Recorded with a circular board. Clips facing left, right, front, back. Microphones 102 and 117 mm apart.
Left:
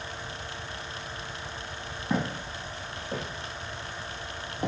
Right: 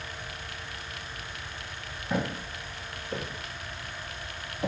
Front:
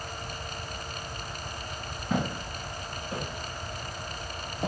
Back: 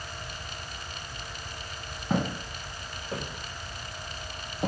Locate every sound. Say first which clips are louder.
2.1 s footsteps: left 1 dB, back 1 dB; 130° left, 2.5 m; by 4.7 s 105° left, 1.7 m